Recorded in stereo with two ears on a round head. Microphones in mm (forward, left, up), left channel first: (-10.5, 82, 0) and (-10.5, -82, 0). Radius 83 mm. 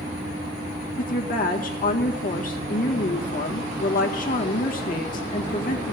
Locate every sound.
1.0 s a woman speaking: 50° left (ahead or behind), 1.7 m